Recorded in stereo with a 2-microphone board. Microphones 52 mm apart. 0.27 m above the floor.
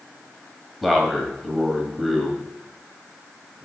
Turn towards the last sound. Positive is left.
turn(degrees=0)  # may be behind; listen again after turning